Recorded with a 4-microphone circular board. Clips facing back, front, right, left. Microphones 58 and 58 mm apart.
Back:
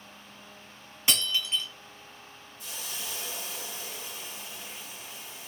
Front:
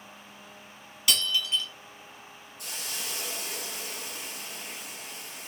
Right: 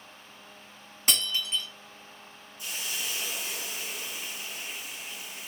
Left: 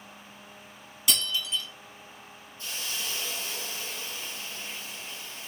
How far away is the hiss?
About 1.0 m.